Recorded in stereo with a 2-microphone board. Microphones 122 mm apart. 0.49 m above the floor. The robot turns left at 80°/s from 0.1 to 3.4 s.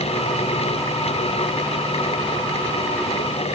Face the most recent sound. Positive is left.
No sound to turn to.